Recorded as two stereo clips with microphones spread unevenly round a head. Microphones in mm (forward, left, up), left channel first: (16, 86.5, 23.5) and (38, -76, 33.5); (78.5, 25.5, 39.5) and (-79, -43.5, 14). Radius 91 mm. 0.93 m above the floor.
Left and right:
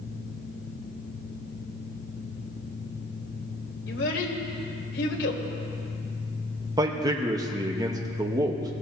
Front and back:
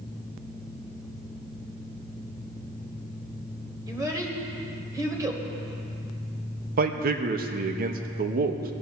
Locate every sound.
3.9 s a child speaking: 130° left, 2.0 m
6.8 s a man speaking: 150° right, 1.0 m